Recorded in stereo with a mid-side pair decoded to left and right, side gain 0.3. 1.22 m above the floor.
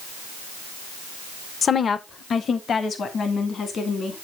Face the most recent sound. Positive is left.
turn(degrees=75)